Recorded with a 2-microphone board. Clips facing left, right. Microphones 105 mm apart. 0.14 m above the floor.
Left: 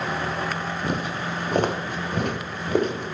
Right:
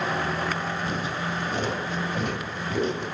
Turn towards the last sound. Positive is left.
turn(degrees=50)  # may be behind; listen again after turning